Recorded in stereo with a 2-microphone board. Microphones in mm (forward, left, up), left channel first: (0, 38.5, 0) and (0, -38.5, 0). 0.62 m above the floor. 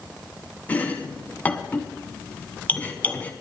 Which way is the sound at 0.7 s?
20° left (ahead or behind).